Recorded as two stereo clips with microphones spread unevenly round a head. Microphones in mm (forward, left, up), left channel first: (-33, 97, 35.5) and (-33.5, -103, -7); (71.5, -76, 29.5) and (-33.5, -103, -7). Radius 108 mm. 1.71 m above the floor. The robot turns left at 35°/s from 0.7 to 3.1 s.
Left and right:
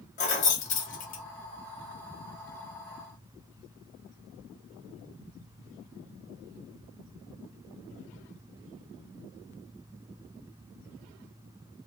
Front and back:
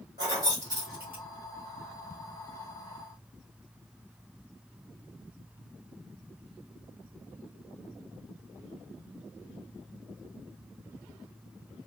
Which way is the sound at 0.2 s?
115° left.